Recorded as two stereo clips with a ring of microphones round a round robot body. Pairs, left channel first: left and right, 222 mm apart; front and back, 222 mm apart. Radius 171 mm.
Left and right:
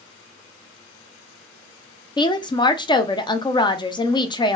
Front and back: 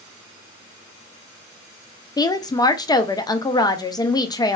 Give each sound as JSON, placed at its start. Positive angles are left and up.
{"t": 2.2, "sound": "a woman speaking", "azimuth_deg": 50, "distance_m": 0.5}